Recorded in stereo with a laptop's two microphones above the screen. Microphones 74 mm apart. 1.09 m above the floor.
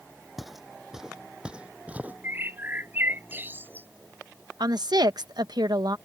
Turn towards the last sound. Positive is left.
turn(degrees=-70)  # may be behind; listen again after turning